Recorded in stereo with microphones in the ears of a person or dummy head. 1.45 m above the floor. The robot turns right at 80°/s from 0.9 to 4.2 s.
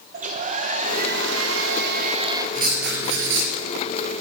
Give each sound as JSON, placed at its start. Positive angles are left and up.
{"t": 0.1, "sound": "a hair dryer", "azimuth_deg": -140, "distance_m": 1.6}
{"t": 2.5, "sound": "writing", "azimuth_deg": -135, "distance_m": 5.0}